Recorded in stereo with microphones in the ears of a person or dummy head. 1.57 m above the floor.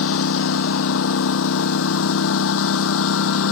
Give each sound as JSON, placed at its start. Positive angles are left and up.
{"t": 0.0, "sound": "a lawn mower", "side_deg": 80}